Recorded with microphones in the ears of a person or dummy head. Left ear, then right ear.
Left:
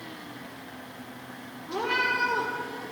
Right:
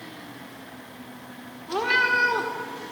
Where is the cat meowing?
55° right (ahead or behind), 1.6 m.